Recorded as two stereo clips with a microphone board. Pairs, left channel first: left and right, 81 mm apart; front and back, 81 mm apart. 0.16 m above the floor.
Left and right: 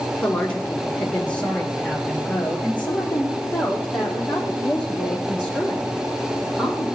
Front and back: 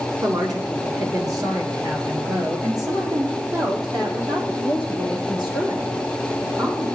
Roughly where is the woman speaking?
Behind.